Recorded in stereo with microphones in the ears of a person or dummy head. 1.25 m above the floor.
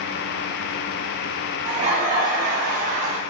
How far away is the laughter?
About 1.1 m.